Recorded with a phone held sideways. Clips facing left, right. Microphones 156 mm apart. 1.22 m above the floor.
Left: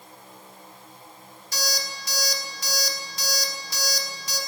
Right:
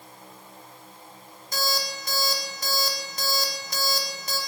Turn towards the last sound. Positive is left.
turn(degrees=-55)  # may be behind; listen again after turning